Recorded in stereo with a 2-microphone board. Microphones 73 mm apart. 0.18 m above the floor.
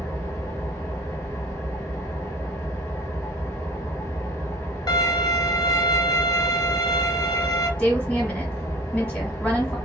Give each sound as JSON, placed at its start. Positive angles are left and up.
{"t": 0.0, "sound": "an engine running", "side_deg": 35, "distance_m": 1.5}
{"t": 4.9, "sound": "a violin", "side_deg": 65, "distance_m": 0.6}
{"t": 7.8, "sound": "a woman speaking", "side_deg": 15, "distance_m": 1.2}